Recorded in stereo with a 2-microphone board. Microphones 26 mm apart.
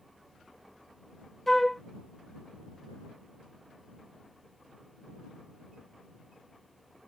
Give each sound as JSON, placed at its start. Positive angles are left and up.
{"t": 1.5, "sound": "a flute", "side_deg": 15}